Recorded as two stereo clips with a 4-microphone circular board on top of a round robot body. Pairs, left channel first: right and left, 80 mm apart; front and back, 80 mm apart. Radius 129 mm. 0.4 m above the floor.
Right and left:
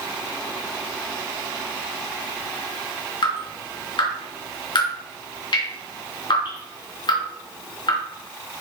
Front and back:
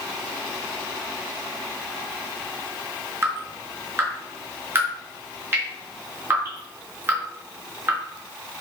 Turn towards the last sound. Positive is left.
turn(degrees=-120)